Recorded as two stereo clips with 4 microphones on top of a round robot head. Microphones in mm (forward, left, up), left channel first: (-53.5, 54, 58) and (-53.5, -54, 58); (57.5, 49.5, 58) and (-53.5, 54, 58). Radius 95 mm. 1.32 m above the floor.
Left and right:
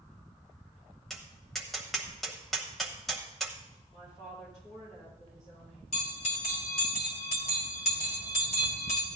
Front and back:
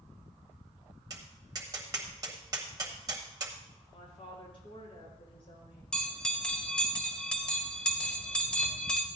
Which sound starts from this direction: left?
A bell, at 5.9 s.